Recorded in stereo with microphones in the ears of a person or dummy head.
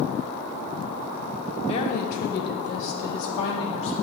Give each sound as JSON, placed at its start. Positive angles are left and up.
{"t": 1.7, "sound": "a woman speaking", "side_deg": 30, "distance_m": 0.8}